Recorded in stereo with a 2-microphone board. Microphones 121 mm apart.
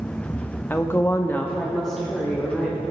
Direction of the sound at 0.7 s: 15° left (ahead or behind).